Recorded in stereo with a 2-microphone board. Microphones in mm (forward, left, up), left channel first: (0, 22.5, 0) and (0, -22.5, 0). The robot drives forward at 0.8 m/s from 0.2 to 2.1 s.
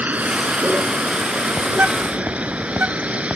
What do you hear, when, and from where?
0.0 s a vehicle: 40° right (ahead or behind); by 3.4 s 35° right (ahead or behind)
1.7 s a bird: 40° right (ahead or behind); by 3.3 s 50° right (ahead or behind)